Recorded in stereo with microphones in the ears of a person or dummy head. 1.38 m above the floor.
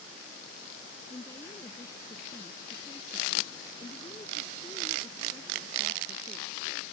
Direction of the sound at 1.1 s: 20° left (ahead or behind).